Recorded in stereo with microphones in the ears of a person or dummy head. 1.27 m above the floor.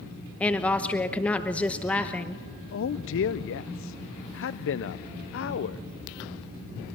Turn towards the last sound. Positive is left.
turn(degrees=60)  # may be behind; listen again after turning